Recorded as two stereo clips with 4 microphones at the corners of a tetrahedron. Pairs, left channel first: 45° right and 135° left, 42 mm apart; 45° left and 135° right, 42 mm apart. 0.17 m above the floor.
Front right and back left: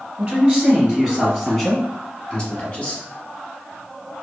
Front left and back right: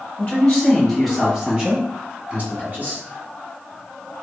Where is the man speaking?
95° left, 1.3 m; by 3.0 s 100° right, 1.7 m.